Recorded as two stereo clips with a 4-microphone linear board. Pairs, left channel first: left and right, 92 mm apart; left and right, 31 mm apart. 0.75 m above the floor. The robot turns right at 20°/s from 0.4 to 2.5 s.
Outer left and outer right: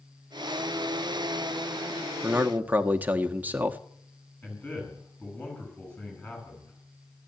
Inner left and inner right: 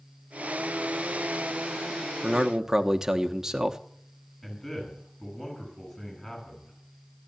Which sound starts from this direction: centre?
A man speaking, at 4.4 s.